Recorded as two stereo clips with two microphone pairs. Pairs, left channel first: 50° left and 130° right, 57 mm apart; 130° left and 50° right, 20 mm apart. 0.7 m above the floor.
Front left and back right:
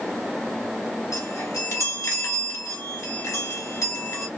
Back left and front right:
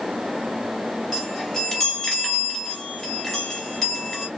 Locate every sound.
1.1 s a chime: 60° left, 3.5 m